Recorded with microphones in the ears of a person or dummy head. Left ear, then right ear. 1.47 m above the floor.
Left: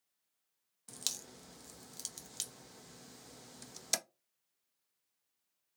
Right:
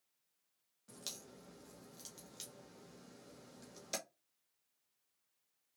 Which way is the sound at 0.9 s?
35° left (ahead or behind).